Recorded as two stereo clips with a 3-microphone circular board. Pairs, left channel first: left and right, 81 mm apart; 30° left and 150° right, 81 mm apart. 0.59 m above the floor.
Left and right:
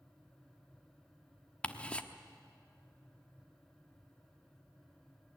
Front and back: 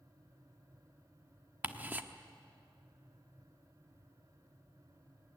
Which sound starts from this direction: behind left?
Ticking, at 1.6 s.